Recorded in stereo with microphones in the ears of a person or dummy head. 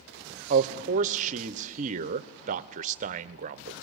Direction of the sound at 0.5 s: 45° right (ahead or behind).